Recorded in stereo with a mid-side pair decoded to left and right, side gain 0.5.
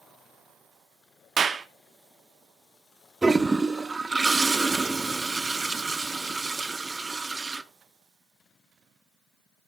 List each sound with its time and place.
1.4 s a clap: 45° right, 1.3 m
3.2 s a toilet flushing: 20° right, 0.9 m